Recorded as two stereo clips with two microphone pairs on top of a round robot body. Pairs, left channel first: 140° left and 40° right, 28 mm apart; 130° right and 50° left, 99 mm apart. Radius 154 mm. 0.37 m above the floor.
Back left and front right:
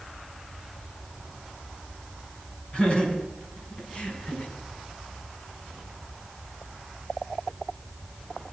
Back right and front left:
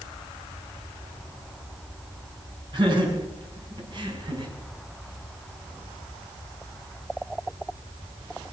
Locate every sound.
2.7 s laughter: 90° left, 6.5 m